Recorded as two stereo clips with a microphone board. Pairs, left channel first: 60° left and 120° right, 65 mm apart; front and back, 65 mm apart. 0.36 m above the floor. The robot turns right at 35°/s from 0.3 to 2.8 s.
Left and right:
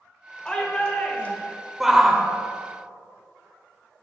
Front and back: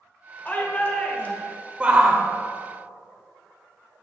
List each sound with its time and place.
0.5 s a shout: straight ahead, 1.2 m; by 1.5 s 35° left, 1.2 m
1.8 s a shout: 165° left, 0.8 m; by 2.2 s straight behind, 0.8 m